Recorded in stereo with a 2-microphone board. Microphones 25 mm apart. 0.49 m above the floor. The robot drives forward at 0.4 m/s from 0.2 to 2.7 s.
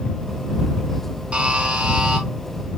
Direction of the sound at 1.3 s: 55° right (ahead or behind).